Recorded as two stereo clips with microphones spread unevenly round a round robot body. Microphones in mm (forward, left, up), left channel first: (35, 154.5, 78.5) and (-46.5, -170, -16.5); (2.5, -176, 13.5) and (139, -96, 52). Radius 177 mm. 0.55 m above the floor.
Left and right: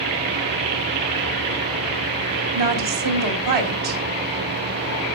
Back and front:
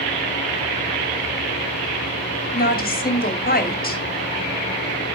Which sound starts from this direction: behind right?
A woman speaking, at 2.5 s.